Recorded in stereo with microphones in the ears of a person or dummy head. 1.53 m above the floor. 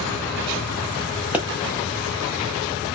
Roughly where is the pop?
Centre.